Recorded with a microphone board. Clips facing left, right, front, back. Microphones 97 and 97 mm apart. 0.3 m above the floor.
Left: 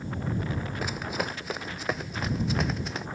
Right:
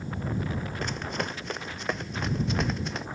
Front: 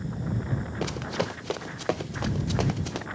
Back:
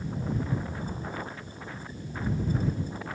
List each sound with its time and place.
0.8 s running footsteps: 5° left; by 3.1 s straight ahead